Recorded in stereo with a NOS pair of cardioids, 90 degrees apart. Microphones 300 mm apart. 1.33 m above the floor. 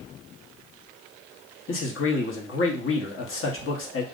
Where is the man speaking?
45° left, 1.2 m.